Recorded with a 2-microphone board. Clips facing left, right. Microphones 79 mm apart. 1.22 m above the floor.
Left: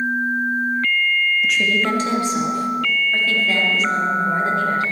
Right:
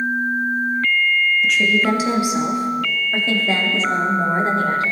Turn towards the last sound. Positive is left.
turn(degrees=-40)  # may be behind; listen again after turning